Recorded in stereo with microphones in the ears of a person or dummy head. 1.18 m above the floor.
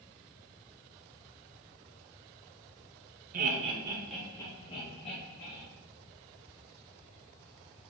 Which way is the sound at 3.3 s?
45° right (ahead or behind).